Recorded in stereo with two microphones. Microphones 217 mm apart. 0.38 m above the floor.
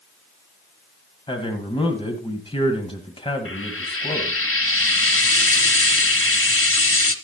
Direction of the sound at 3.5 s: 75° left (ahead or behind).